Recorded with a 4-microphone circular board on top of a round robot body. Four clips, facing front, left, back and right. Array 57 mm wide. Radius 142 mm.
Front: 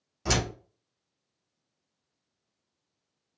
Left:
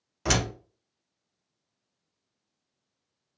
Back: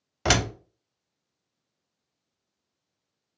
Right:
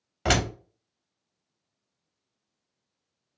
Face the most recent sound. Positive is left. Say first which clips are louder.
# right 3 dB, back 5 dB
turn(degrees=-150)